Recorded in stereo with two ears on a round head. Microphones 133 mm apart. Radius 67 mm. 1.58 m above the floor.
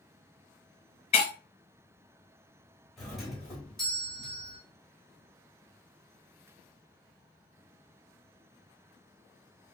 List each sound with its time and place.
1.1 s breaking glass: 40° left (ahead or behind), 1.1 m
3.0 s a doorbell: centre (ahead or behind), 0.9 m